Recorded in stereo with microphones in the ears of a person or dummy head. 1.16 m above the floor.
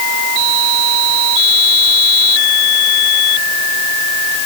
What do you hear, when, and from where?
Only background noise.